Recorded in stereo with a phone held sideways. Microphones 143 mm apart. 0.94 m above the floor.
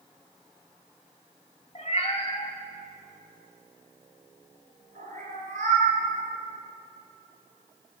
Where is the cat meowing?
55° left (ahead or behind), 1.4 m; by 6.0 s 75° right (ahead or behind), 3 m.